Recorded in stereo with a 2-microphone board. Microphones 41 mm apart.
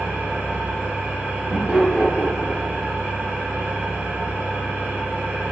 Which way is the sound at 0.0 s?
45° right (ahead or behind).